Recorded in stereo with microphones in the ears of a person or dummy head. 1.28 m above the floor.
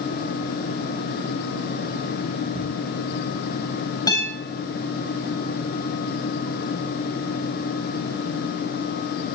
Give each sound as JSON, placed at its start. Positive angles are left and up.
{"t": 2.5, "sound": "ticking", "side_deg": 0, "distance_m": 2.0}
{"t": 4.1, "sound": "a guitar", "side_deg": 15, "distance_m": 3.0}